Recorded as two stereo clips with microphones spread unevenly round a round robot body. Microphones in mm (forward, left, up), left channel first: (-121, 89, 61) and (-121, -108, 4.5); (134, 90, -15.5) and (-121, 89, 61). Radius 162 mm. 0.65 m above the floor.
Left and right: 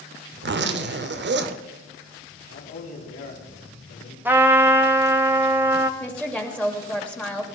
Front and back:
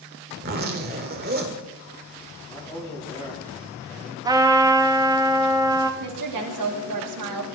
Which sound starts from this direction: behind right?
A zipper, at 0.4 s.